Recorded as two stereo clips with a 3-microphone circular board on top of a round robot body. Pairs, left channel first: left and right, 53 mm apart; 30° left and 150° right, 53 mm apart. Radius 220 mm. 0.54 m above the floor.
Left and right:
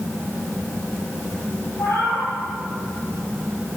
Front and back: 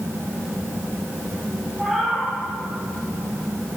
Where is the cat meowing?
120° left, 4 m.